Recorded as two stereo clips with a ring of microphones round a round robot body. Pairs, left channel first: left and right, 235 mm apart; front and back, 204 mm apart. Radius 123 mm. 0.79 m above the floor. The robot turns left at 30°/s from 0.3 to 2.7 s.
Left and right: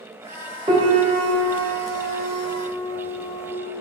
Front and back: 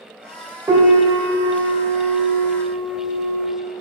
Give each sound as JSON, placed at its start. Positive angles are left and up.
{"t": 0.7, "sound": "a piano", "azimuth_deg": -115, "distance_m": 1.1}